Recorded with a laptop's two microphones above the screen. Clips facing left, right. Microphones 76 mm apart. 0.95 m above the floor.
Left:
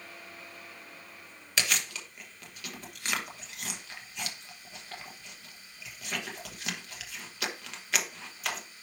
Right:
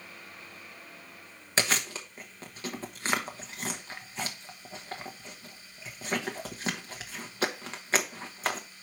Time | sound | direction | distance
1.6 | chewing | 35° right (ahead or behind) | 1.1 m